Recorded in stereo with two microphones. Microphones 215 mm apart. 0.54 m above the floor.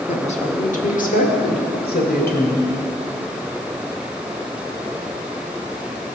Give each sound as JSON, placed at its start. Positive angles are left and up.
{"t": 0.1, "sound": "a woman speaking", "side_deg": 30, "distance_m": 1.3}